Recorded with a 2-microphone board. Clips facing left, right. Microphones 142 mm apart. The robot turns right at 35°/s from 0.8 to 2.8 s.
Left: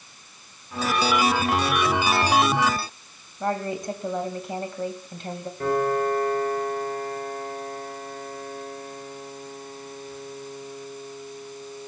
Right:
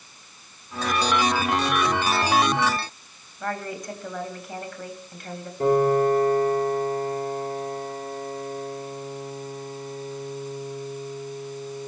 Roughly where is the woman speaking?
Left.